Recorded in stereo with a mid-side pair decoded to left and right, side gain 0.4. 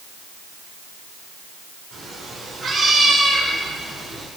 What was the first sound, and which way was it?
A cat meowing, 65° right.